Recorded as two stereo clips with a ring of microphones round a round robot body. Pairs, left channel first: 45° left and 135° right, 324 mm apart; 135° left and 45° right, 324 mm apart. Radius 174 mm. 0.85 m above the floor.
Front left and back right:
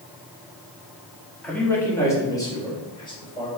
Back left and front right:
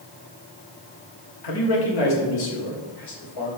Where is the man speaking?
130° left, 1.6 m; by 3.5 s 120° left, 3.5 m.